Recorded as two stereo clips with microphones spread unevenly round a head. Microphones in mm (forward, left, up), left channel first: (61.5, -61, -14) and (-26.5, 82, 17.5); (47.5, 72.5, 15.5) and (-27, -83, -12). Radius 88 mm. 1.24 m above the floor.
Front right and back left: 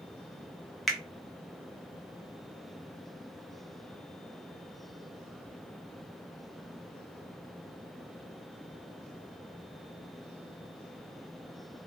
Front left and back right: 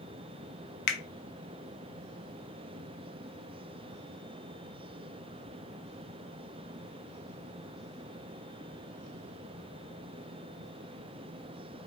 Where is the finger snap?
30° left, 0.7 m.